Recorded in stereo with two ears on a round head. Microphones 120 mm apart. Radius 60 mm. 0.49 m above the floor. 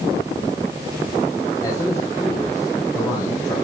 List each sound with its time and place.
1.6 s a man speaking: 30° left (ahead or behind), 3.5 m